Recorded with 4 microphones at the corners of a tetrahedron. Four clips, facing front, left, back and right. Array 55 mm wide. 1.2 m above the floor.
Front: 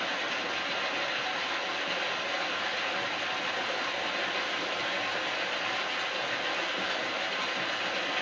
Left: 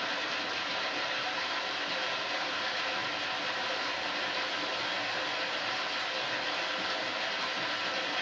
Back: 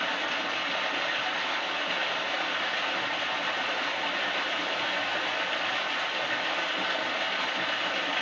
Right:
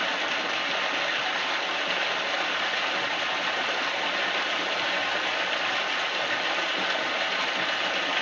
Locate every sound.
0.0 s running water: 100° right, 0.8 m